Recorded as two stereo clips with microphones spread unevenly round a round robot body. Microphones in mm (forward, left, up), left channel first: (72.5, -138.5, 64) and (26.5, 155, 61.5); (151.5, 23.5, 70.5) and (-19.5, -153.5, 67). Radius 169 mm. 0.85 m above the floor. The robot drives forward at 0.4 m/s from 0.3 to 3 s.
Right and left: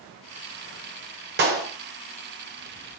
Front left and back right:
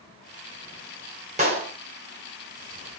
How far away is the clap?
About 2.5 m.